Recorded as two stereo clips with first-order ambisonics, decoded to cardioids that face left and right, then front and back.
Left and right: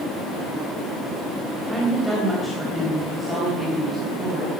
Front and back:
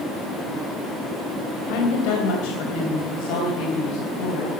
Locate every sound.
1.7 s a woman speaking: 10° right, 3.5 m; by 4.5 s straight ahead, 4.5 m